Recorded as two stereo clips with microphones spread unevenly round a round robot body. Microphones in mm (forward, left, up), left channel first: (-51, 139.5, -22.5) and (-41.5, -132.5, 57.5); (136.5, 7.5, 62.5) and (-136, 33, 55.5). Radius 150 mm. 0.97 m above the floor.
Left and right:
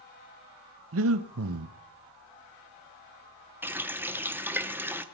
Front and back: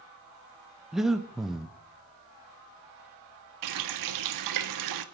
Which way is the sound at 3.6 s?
170° right.